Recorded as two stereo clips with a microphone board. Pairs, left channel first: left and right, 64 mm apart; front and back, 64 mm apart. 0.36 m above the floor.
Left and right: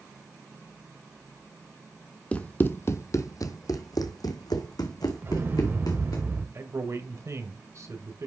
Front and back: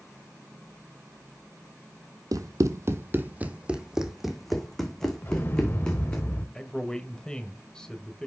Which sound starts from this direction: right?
A man speaking, at 6.5 s.